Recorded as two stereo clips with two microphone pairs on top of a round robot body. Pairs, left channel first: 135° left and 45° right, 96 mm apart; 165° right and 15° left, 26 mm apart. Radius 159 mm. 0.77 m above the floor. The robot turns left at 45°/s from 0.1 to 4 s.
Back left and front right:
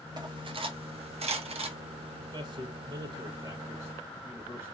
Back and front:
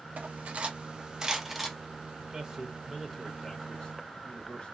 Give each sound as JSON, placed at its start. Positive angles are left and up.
{"t": 0.2, "sound": "cutlery clinking", "azimuth_deg": 5, "distance_m": 0.7}
{"t": 2.2, "sound": "a man speaking", "azimuth_deg": -20, "distance_m": 1.0}